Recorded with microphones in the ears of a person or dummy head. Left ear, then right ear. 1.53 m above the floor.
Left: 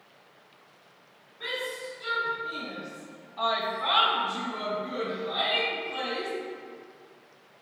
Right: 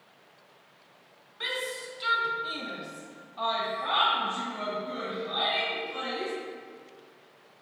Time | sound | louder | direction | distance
1.4 | a shout | right 1 dB | 60° right (ahead or behind) | 1.7 m